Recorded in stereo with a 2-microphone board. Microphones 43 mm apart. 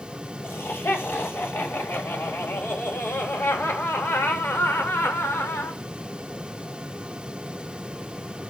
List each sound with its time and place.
0.4 s laughter: 60° left (ahead or behind), 7.5 m; by 5.8 s 85° left, 4.5 m